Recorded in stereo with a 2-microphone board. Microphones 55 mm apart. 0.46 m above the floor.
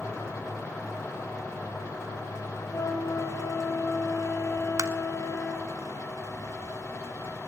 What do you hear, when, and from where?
2.7 s a flute: 75° left (ahead or behind), 4 m
4.8 s tapping: 70° right (ahead or behind), 0.8 m